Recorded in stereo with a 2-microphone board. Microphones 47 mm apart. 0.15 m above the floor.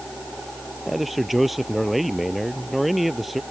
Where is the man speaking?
Centre (ahead or behind).